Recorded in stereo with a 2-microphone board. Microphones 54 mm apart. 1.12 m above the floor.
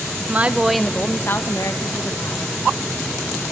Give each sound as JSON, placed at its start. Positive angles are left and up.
{"t": 0.2, "sound": "a woman speaking", "side_deg": -35, "distance_m": 0.8}